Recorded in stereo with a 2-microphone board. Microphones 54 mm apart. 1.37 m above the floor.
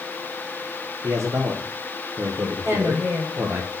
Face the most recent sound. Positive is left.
turn(degrees=-55)  # may be behind; listen again after turning